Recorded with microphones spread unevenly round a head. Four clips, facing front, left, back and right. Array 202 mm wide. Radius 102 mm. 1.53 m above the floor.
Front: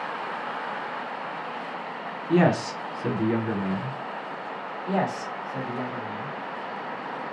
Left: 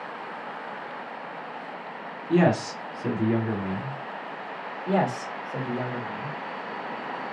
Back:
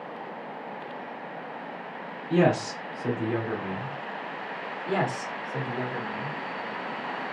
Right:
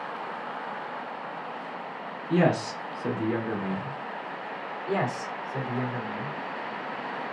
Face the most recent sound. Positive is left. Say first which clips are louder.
# left 4 dB, front 1 dB
turn(degrees=85)